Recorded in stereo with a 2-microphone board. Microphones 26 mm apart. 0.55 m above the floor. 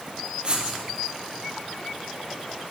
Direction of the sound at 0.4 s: 35° right (ahead or behind).